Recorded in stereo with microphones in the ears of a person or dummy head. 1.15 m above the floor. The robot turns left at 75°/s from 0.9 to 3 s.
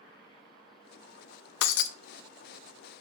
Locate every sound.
1.6 s breaking glass: 70° left (ahead or behind), 0.6 m